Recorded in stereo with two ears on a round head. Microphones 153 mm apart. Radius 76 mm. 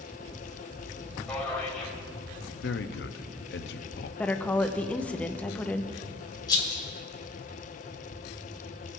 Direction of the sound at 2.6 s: 65° left (ahead or behind).